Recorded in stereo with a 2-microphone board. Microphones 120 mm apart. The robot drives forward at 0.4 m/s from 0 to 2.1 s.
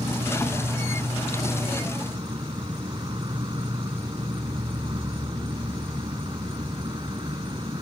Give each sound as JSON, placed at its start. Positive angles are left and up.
{"t": 0.0, "sound": "an insect", "side_deg": -60}